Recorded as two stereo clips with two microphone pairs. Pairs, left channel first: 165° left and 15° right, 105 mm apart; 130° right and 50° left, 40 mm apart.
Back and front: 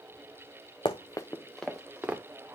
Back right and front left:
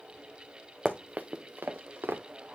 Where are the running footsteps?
130° left, 1.0 m; by 2.2 s 60° left, 1.8 m.